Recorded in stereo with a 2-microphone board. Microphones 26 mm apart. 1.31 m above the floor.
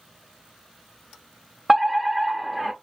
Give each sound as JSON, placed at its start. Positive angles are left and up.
{"t": 1.7, "sound": "a fire alarm", "side_deg": -5, "distance_m": 0.7}